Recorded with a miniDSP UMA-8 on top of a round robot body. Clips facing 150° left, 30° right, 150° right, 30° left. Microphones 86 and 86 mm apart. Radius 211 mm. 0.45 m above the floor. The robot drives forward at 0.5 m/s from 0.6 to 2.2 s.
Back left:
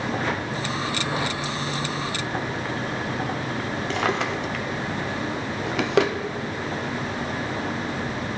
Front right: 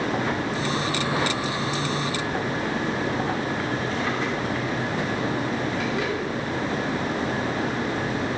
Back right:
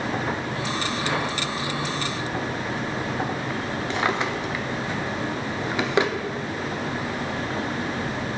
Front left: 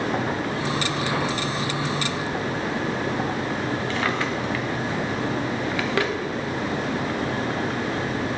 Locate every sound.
3.9 s a drawer: 140° left, 0.6 m